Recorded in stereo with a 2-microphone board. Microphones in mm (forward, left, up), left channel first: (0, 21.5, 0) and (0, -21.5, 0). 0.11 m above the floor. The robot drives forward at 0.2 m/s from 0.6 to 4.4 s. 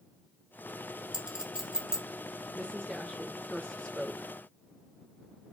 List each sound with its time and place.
1.1 s a clink: 15° right (ahead or behind), 0.7 m; by 2.0 s 20° right (ahead or behind), 0.7 m
2.5 s a woman speaking: 25° left (ahead or behind), 1.4 m